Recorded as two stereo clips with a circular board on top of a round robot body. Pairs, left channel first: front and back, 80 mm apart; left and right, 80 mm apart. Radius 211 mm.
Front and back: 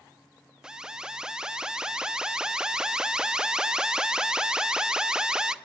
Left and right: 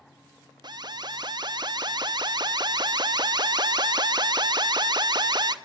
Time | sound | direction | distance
0.6 | an alarm | 100° right | 1.1 m